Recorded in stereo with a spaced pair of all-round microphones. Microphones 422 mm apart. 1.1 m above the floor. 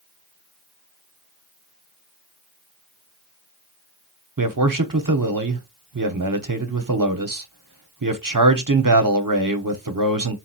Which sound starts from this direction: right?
A man speaking, at 4.4 s.